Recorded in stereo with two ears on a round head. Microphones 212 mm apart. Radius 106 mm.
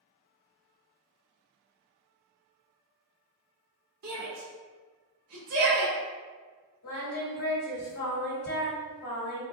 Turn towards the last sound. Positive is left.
turn(degrees=75)  # may be behind; listen again after turning